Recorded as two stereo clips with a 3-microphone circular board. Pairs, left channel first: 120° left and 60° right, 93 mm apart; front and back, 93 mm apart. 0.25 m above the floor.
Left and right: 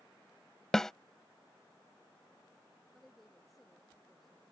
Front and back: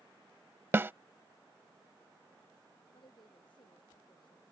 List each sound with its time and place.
0.7 s a snare drum: 160° right
2.9 s a woman speaking: 30° left